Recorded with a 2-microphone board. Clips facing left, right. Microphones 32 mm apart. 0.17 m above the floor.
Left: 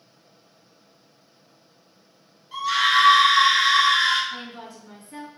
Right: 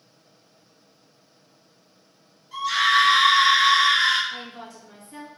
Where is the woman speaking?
15° left (ahead or behind), 1.7 m.